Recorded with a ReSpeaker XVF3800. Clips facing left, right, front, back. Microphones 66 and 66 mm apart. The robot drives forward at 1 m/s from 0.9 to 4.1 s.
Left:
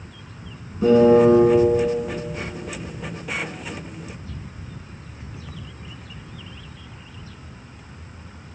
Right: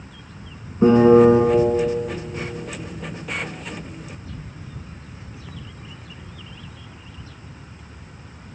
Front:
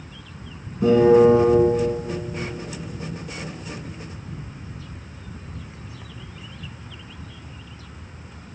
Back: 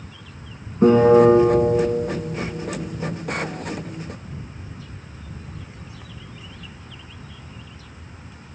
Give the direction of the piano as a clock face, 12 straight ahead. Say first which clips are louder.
Right 2 dB, back 1 dB; 5 o'clock.